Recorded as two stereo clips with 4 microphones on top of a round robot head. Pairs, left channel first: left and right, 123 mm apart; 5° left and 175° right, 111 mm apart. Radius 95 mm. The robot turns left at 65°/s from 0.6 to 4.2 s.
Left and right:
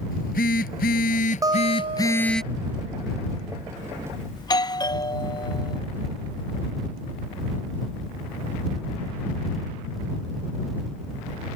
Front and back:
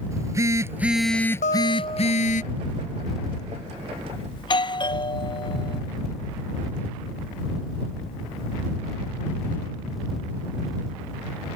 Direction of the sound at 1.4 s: 30° right.